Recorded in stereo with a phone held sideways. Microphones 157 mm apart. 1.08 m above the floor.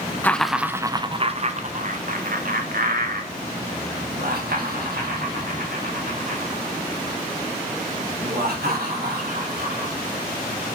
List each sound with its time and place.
0.2 s laughter: 10° left (ahead or behind), 0.5 m; by 9.9 s 75° right (ahead or behind), 5 m